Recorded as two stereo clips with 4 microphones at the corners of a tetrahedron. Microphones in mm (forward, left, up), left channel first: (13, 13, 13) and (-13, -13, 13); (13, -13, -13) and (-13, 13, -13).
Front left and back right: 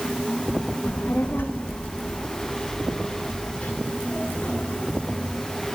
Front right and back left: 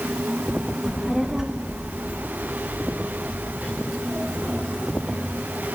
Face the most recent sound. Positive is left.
turn(degrees=105)